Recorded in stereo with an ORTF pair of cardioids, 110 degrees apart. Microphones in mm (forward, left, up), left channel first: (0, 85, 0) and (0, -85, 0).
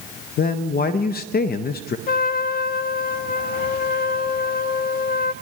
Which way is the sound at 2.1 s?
60° left.